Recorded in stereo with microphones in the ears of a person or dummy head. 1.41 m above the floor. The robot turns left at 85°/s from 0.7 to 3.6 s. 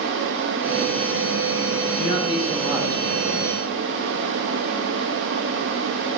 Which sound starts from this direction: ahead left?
A man speaking, at 2.0 s.